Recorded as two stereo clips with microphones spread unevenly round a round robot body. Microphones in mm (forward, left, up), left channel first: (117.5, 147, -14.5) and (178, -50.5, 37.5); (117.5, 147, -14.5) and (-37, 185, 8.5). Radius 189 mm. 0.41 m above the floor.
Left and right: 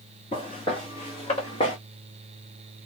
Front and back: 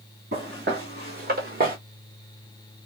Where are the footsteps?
170° right, 1.8 m; by 1.8 s straight behind, 0.7 m.